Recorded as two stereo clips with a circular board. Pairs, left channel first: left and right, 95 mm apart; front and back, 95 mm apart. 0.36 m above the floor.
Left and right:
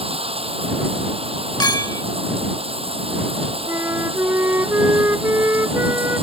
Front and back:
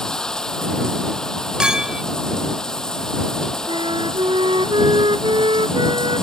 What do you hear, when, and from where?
0.0 s running water: 85° right
1.6 s a clink: 105° left
3.7 s a flute: 155° right